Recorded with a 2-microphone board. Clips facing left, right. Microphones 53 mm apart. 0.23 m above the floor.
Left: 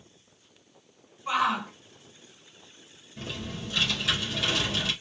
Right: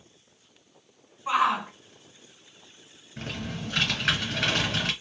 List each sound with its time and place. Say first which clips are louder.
1.3 s a shout: right 2 dB; 15° right (ahead or behind), 2 m
3.2 s typing on a keyboard: right 2 dB; 55° right (ahead or behind), 2 m